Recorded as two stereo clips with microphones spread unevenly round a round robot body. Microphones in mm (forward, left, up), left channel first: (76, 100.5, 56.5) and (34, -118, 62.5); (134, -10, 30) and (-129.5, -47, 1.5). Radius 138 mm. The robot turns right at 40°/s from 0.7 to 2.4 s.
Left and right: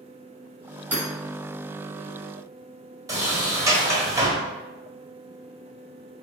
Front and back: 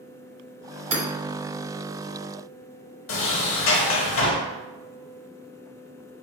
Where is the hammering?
175° left, 1.6 m; by 1.0 s straight behind, 1.6 m.